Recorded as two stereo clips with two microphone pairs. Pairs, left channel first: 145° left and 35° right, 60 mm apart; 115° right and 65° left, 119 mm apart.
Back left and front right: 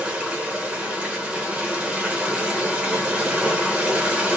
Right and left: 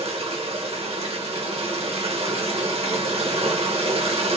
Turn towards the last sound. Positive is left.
turn(degrees=35)